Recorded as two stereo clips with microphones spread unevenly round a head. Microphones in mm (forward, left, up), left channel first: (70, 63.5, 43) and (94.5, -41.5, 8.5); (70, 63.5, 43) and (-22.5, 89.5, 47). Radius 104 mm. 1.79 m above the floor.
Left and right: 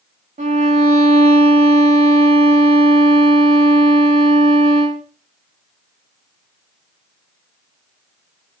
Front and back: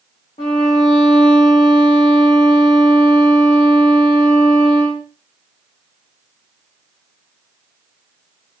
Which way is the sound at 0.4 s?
65° right.